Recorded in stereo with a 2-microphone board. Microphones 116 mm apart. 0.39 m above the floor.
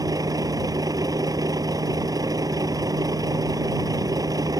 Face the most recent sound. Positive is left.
turn(degrees=-30)  # may be behind; listen again after turning